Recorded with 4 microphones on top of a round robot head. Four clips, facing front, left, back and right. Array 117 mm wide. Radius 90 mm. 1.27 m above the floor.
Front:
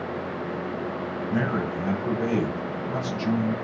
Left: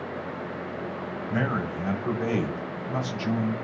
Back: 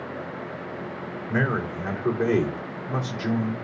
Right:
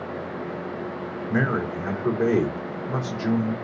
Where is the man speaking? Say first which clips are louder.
Right 4 dB, back 1 dB; 125° right, 3.5 m.